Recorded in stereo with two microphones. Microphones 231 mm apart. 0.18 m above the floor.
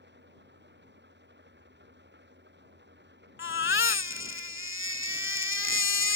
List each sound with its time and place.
0.0 s an engine running: 50° right (ahead or behind)
3.4 s a baby crying: 60° left (ahead or behind)